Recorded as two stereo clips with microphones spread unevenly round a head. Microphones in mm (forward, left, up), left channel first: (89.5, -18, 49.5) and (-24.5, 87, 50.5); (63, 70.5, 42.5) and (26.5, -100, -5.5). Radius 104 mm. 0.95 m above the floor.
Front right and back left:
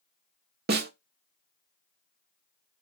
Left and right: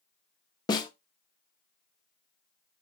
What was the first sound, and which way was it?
A snare drum, 135° left.